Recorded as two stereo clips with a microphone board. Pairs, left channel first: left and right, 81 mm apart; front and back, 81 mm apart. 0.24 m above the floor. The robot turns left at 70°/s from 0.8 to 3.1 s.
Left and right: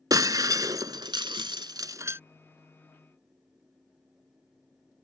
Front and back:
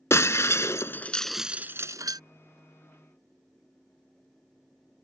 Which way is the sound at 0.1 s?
50° right.